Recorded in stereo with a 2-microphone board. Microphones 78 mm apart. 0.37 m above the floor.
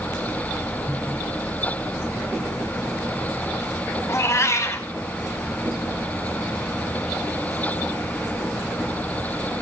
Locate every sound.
4.1 s a cat meowing: 40° left (ahead or behind), 0.5 m